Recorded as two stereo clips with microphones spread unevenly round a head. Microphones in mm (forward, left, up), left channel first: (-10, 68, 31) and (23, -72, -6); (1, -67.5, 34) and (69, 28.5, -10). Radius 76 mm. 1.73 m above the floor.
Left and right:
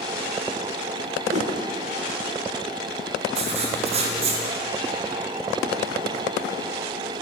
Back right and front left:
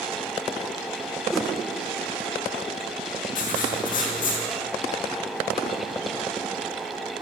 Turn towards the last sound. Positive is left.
turn(degrees=-125)